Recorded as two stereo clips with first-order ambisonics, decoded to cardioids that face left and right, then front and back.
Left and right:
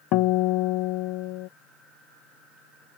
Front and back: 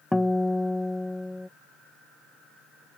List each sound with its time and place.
0.1 s a guitar: 85° left